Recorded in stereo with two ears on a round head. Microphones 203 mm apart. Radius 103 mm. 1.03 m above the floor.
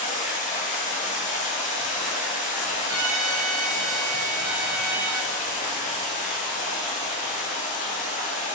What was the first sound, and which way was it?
Running water, 35° left (ahead or behind).